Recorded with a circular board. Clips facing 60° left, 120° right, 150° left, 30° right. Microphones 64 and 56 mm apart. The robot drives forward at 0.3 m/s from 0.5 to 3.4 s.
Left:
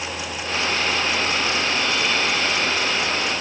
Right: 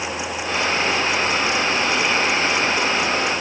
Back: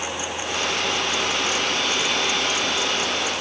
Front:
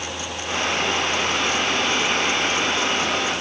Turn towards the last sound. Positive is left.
No sound to turn to.